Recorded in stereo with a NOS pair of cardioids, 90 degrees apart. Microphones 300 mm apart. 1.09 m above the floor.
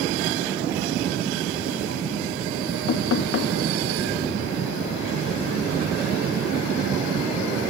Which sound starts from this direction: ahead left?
Knocking, at 2.9 s.